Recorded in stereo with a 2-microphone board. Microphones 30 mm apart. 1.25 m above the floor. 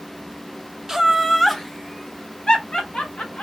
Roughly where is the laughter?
Centre.